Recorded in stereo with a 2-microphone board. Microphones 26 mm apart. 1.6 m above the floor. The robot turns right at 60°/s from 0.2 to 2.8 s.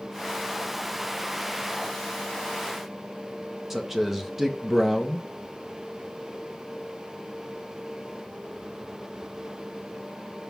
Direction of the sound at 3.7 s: 10° right (ahead or behind).